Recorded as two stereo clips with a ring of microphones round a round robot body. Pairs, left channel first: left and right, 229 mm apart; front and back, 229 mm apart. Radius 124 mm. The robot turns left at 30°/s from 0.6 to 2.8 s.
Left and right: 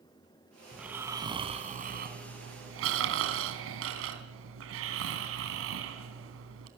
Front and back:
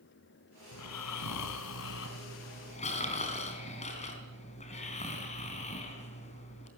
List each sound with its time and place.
0.7 s snoring: straight ahead, 3.5 m; by 6.7 s 65° right, 3.5 m